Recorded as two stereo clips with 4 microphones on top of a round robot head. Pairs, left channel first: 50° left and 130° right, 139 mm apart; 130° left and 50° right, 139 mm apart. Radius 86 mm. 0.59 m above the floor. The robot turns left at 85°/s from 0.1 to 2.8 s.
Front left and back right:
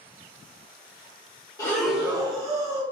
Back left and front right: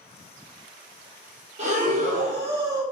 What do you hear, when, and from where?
1.6 s breathing: 15° right, 1.5 m; by 2.8 s 115° right, 1.5 m